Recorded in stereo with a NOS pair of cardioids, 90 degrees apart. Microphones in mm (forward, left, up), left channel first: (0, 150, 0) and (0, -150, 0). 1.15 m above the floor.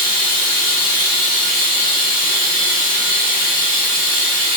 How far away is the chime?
I don't hear a chime.